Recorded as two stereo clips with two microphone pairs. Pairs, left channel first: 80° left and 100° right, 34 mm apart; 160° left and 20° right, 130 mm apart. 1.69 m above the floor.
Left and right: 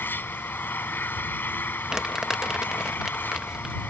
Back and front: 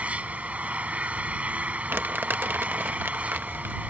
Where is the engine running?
60° left.